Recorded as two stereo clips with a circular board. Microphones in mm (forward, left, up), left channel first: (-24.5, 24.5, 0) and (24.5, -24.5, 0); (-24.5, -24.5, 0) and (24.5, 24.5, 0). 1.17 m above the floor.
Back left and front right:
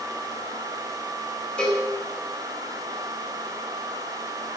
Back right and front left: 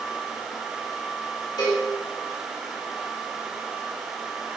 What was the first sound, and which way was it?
A cowbell, 150° right.